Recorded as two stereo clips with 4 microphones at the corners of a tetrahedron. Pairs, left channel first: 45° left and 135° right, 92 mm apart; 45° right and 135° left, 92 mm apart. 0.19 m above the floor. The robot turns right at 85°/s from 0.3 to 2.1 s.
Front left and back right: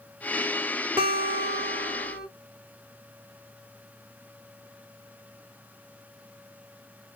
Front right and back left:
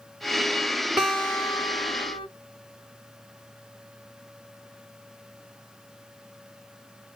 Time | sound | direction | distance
1.0 | a guitar | 140° right | 2.5 m